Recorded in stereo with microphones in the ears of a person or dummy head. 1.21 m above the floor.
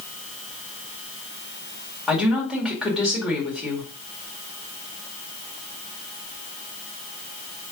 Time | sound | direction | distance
2.1 | a woman speaking | centre (ahead or behind) | 1.7 m